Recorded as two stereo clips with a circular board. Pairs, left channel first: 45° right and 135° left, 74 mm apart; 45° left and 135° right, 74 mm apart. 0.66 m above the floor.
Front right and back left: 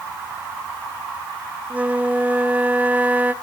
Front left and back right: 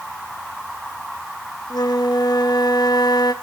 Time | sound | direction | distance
1.7 | a flute | 65° left | 1.2 m